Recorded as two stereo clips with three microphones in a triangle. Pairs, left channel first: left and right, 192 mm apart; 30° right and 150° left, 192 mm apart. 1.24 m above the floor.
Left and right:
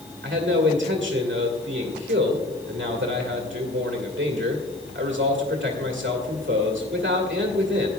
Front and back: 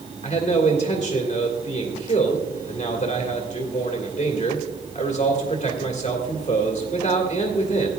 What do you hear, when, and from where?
0.2 s a man speaking: 85° right, 1.7 m